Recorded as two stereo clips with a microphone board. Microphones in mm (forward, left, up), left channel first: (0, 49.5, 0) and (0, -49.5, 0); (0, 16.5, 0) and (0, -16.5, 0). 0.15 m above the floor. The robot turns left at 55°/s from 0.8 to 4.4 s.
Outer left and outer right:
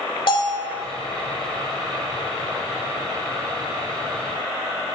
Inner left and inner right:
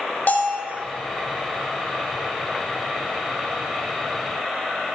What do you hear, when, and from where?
0.3 s a bell: 50° left (ahead or behind), 0.8 m